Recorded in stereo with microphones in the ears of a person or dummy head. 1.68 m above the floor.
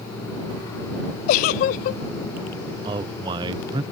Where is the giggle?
50° left (ahead or behind).